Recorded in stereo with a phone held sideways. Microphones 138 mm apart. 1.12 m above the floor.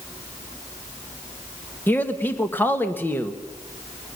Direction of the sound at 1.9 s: 15° left (ahead or behind).